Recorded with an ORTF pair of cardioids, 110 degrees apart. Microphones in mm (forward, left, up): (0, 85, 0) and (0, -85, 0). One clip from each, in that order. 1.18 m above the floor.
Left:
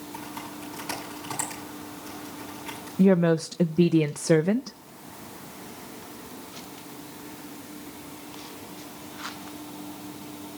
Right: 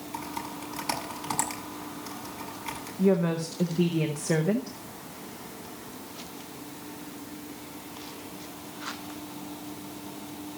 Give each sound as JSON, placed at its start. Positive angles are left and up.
{"t": 0.1, "sound": "typing on a keyboard", "azimuth_deg": -35, "distance_m": 8.0}
{"t": 3.0, "sound": "a woman speaking", "azimuth_deg": 60, "distance_m": 0.6}